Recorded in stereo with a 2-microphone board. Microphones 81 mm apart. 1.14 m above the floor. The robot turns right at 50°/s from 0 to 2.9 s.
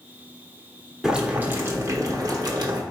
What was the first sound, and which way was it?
Boiling, 170° right.